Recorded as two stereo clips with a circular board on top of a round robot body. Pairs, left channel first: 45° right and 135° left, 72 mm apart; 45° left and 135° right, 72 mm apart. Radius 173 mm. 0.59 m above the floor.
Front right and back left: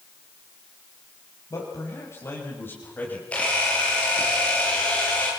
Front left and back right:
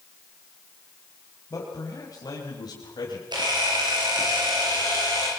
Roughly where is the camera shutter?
Behind right.